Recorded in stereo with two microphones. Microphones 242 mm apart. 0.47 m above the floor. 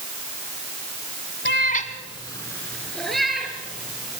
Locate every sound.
1.4 s a cat meowing: 50° left (ahead or behind), 1.3 m; by 4.2 s 5° right (ahead or behind), 4.5 m